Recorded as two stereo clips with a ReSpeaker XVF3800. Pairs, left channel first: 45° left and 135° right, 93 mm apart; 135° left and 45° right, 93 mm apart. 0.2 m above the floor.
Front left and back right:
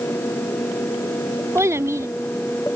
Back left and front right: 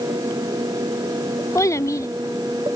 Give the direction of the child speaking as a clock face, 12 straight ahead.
6 o'clock.